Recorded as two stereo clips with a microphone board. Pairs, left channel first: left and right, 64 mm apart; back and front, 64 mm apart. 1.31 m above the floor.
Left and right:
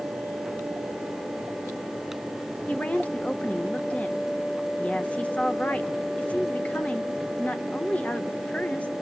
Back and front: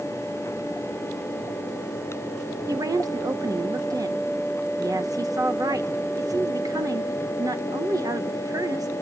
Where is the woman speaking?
20° left, 1.3 m.